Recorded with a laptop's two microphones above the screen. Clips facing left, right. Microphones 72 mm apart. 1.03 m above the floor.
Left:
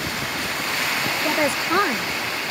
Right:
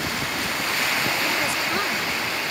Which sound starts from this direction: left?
A woman speaking, at 1.2 s.